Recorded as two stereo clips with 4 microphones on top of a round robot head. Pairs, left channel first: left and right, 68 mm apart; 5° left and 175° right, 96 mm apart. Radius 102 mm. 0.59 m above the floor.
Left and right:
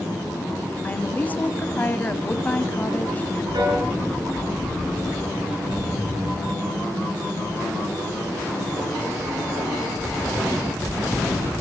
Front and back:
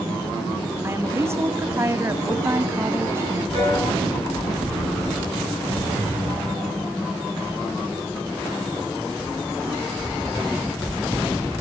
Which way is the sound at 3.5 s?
65° right.